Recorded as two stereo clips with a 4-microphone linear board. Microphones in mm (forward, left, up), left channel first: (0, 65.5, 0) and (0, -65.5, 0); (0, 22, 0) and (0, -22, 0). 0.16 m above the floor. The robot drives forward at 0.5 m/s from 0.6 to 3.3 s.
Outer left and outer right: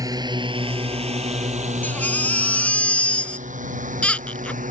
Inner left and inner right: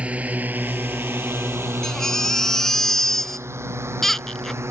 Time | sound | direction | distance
0.0 | a drone | 25° right (ahead or behind) | ?
1.8 | a baby crying | 15° left (ahead or behind) | ?